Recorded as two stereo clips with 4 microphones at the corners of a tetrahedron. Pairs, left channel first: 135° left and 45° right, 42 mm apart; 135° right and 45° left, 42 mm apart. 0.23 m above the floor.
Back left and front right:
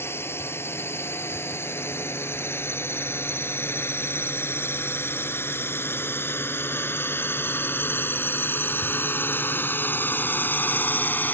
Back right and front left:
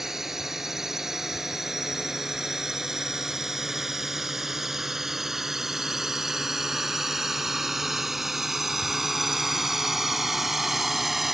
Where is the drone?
125° left; by 11.3 s 130° left.